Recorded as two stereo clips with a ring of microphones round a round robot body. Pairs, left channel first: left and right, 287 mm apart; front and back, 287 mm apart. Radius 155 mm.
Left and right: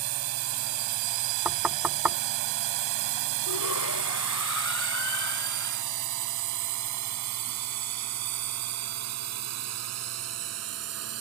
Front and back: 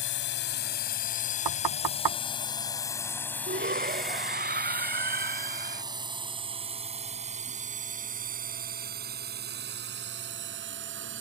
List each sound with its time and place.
0.0 s a drone: 55° right; by 11.2 s 125° right
1.4 s knocking: 175° right
3.5 s a shout: 120° left